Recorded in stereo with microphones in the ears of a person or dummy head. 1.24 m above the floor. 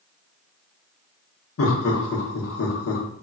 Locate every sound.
1.6 s laughter: 75° left (ahead or behind), 0.8 m